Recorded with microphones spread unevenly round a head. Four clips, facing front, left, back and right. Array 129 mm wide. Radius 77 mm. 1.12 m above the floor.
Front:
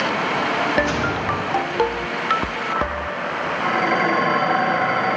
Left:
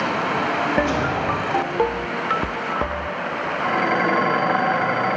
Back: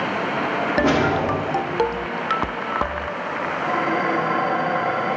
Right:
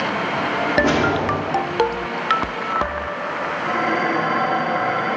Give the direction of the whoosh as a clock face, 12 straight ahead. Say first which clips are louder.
Right 3 dB, back 3 dB; 5 o'clock.